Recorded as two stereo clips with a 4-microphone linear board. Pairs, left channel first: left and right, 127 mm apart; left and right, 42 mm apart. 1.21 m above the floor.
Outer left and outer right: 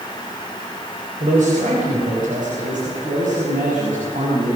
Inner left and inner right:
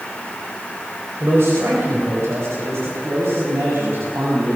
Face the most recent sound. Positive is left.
turn(degrees=-85)